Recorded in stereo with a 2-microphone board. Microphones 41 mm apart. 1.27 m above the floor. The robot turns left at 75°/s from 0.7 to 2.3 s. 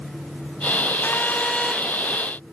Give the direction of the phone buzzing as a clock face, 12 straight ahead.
10 o'clock.